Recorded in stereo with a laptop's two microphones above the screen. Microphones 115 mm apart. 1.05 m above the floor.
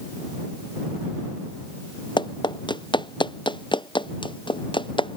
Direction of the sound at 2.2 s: 40° left (ahead or behind).